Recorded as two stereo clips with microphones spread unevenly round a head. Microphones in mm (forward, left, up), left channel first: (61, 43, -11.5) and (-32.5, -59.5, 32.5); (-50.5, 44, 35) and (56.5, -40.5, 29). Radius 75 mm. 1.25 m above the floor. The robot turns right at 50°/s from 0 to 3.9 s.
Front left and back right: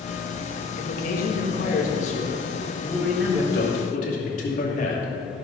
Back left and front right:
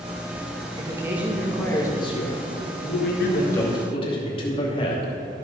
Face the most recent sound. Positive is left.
turn(degrees=85)